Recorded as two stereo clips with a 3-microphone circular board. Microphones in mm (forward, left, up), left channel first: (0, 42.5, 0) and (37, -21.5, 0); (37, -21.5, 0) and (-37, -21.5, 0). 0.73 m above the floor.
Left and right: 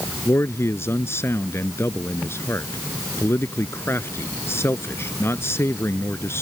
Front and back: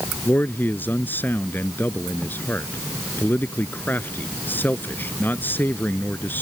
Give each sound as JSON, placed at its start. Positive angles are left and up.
{"t": 0.2, "sound": "a man speaking", "azimuth_deg": 65}